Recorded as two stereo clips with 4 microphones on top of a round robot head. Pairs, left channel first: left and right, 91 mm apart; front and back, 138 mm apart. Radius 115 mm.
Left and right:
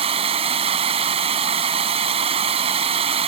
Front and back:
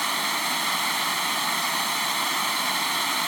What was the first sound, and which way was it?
Running water, 90° right.